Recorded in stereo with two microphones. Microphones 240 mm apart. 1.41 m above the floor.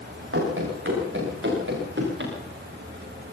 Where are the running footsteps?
60° right (ahead or behind), 8.5 m; by 2.3 s 50° right (ahead or behind), 9.5 m.